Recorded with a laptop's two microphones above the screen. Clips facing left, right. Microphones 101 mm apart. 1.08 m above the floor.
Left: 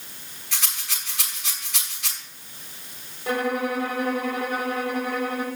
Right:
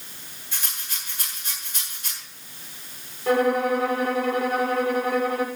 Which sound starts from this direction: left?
A rattle, at 0.5 s.